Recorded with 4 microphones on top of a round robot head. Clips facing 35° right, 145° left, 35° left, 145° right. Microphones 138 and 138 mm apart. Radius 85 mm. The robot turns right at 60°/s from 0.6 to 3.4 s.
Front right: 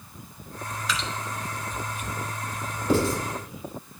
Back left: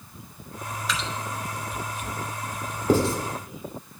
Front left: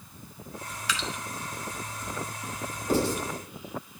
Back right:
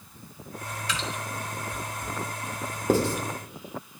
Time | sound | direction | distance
0.9 | dripping | 55° left | 0.9 m
2.9 | writing | 160° right | 1.9 m